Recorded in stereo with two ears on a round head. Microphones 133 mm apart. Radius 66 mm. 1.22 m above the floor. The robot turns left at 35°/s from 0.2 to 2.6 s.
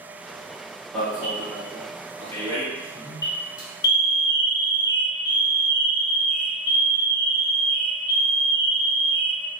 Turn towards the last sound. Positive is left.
turn(degrees=130)